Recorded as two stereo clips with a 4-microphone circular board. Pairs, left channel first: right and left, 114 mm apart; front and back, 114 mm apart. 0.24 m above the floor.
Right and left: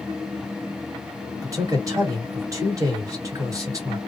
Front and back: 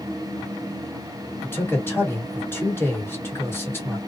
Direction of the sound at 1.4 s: 55° left.